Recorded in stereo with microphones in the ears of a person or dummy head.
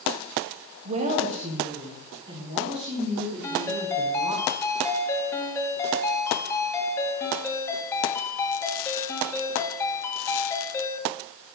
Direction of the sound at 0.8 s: 30° right (ahead or behind).